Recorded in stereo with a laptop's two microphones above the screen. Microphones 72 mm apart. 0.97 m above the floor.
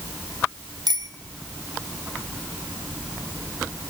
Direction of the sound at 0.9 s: 65° right (ahead or behind).